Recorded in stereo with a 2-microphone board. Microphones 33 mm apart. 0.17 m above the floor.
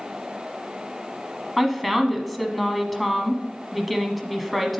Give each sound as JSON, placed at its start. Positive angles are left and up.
{"t": 1.6, "sound": "a woman speaking", "side_deg": 0, "distance_m": 1.0}